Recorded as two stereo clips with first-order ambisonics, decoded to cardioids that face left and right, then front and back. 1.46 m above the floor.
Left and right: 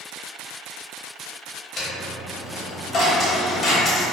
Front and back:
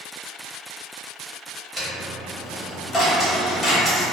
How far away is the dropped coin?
About 0.8 m.